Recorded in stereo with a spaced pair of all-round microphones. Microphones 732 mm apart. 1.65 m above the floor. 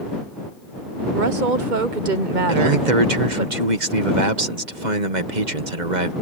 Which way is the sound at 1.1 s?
80° right.